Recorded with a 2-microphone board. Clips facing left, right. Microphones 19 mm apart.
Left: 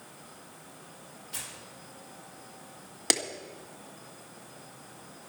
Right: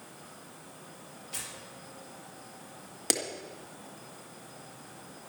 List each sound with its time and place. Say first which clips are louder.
1.3 s tearing paper: even; 25° right (ahead or behind), 5 m
3.1 s a clap: left 3 dB; 15° left (ahead or behind), 1.8 m